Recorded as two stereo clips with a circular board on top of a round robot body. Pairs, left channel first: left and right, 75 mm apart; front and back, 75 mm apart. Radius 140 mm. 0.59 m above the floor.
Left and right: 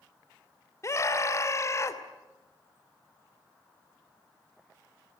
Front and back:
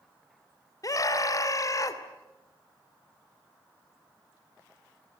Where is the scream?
45° left, 3 m.